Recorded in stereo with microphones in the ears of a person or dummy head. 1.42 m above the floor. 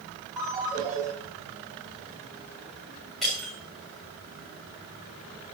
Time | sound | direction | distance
0.4 | a ringtone | 15° right (ahead or behind) | 5 m
3.2 | breaking glass | 5° left (ahead or behind) | 3.5 m